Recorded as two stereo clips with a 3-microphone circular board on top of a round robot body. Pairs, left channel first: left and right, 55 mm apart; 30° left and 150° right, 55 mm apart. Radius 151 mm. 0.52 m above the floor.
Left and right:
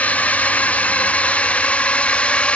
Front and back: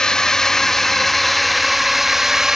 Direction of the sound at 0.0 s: 90° left.